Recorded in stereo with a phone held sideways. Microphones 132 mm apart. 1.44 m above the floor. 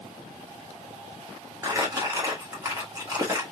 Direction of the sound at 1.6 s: 25° right (ahead or behind).